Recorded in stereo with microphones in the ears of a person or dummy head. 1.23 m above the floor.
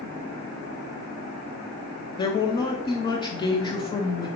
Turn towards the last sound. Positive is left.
turn(degrees=25)  # may be behind; listen again after turning